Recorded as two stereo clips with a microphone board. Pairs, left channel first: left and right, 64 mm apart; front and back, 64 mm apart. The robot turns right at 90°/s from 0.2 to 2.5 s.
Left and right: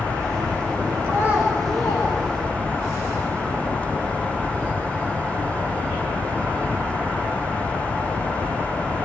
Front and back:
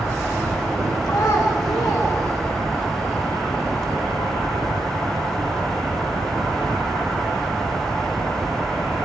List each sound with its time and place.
1.0 s a child speaking: 50° right, 7 m; by 2.9 s 80° left, 7 m